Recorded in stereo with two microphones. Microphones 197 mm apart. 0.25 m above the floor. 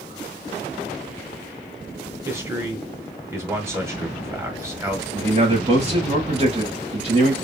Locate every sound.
2.2 s a man speaking: 15° right (ahead or behind), 1.3 m
5.1 s a man speaking: 35° right (ahead or behind), 1.6 m